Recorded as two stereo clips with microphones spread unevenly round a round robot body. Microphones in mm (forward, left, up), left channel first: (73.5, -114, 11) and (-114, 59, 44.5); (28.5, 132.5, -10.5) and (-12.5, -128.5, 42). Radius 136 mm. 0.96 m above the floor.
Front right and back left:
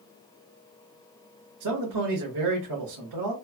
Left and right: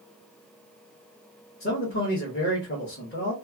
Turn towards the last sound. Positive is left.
turn(degrees=135)